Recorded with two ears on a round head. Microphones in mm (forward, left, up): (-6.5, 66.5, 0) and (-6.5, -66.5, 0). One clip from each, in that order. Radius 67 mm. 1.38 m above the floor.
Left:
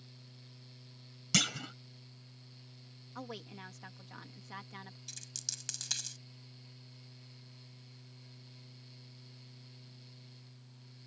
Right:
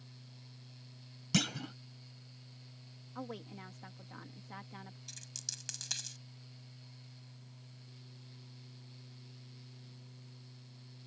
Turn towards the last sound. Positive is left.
turn(degrees=25)  # may be behind; listen again after turning